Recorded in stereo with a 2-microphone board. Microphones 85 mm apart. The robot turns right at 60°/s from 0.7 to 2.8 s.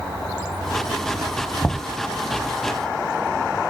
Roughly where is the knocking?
Left.